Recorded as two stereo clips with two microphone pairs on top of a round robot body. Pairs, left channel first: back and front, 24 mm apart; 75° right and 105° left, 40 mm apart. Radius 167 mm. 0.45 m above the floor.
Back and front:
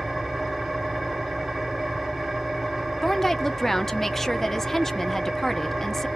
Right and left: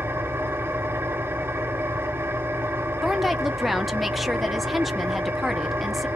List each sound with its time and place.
0.0 s an engine running: 80° left, 0.8 m
3.0 s a woman speaking: 150° right, 0.8 m